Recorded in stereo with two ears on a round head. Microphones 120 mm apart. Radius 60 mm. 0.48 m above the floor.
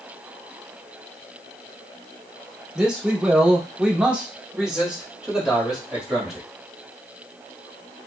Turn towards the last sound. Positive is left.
turn(degrees=-5)  # may be behind; listen again after turning